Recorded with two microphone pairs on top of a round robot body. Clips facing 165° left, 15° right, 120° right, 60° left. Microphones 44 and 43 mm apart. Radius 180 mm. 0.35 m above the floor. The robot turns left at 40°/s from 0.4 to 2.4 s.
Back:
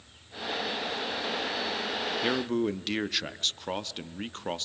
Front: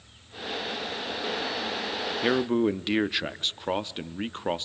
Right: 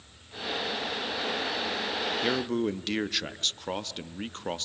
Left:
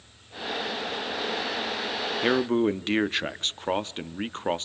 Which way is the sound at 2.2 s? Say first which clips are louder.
Front 6 dB, left 7 dB; 55° left.